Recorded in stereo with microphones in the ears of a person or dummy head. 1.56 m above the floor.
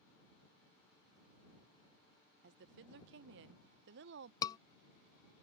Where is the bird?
I don't hear a bird.